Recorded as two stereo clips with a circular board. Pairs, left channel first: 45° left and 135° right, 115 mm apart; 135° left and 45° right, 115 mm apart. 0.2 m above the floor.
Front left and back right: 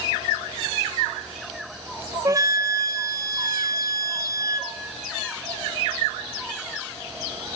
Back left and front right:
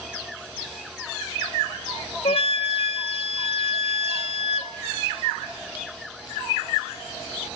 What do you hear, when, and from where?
2.2 s a flute: 165° left, 0.7 m